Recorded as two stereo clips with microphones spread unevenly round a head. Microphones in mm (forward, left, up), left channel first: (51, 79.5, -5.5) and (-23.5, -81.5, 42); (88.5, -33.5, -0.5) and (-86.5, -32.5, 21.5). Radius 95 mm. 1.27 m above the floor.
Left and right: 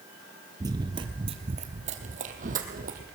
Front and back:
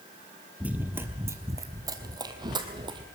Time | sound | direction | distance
0.6 | running footsteps | 115° right | 1.5 m